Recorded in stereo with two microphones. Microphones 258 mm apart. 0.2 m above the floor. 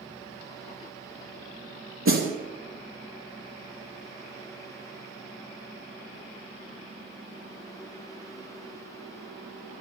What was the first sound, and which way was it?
A snare drum, 55° right (ahead or behind).